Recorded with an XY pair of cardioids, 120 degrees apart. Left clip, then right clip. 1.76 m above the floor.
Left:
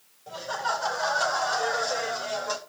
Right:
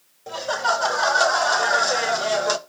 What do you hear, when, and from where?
0.3 s laughter: 60° right, 3 m; by 2.6 s 65° right, 1.5 m